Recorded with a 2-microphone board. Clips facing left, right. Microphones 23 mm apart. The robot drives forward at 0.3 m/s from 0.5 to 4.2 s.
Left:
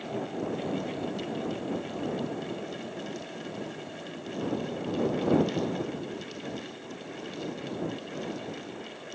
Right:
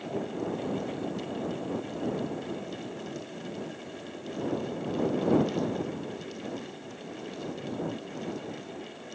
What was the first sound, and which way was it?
Only background noise.